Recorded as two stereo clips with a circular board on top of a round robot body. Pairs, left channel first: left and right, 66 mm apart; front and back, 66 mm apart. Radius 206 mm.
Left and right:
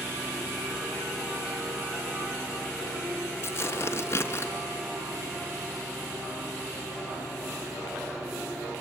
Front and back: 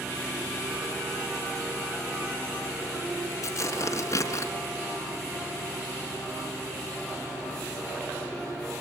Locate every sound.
3.4 s tearing paper: 40° left, 3 m